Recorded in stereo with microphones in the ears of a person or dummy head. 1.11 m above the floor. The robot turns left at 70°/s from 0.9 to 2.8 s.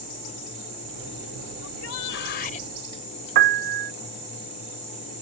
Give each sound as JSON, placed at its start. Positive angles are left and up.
{"t": 1.6, "sound": "a shout", "azimuth_deg": 115}
{"t": 3.4, "sound": "a piano", "side_deg": -50}